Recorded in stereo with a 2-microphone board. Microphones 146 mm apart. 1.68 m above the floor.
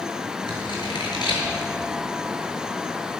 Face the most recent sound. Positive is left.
turn(degrees=30)  # may be behind; listen again after turning